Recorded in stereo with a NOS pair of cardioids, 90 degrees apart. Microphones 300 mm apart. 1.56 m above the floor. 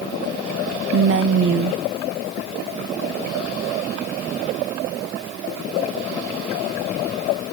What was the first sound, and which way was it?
A woman speaking, 40° right.